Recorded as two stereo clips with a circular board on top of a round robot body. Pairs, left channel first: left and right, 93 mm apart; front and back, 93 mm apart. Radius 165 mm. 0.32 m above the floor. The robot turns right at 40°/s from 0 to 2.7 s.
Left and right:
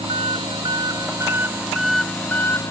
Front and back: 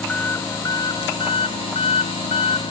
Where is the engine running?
80° right; by 2.7 s 30° left.